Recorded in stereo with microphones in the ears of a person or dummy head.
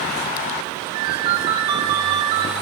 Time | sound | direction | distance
0.9 | a ringtone | 35° right (ahead or behind) | 1.2 m